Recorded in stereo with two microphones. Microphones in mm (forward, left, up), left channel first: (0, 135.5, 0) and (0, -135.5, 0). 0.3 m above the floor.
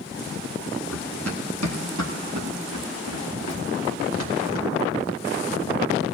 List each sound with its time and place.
0.9 s running footsteps: 65° right (ahead or behind), 2.5 m; by 5.9 s 45° right (ahead or behind), 3.5 m